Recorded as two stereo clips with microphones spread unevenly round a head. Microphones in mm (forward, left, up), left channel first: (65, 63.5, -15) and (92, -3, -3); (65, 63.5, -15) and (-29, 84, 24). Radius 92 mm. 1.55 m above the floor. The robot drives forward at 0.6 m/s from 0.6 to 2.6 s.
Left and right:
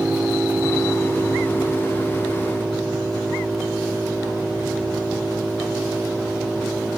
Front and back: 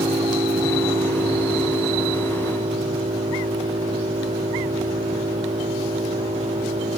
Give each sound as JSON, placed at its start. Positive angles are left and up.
{"t": 0.0, "sound": "an engine running", "azimuth_deg": -150}